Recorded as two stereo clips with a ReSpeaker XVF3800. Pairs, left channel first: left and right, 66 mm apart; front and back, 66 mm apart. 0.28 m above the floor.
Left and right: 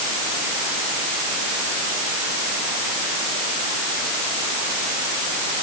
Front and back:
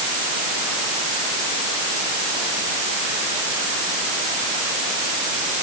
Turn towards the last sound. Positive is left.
No sound to turn to.